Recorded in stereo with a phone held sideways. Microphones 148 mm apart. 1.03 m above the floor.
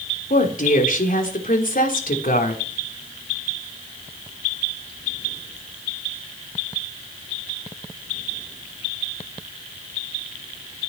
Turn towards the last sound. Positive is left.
turn(degrees=80)